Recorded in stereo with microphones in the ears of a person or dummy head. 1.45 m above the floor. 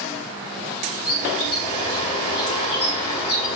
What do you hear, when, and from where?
1.1 s a bird: 30° left (ahead or behind), 5.5 m